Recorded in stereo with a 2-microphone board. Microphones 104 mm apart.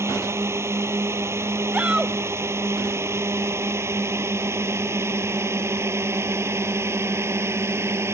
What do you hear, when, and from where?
0.0 s a drone: 25° right (ahead or behind)
1.7 s a shout: 10° right (ahead or behind)